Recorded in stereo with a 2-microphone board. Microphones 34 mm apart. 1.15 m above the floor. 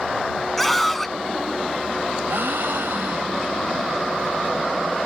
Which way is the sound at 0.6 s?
5° left (ahead or behind).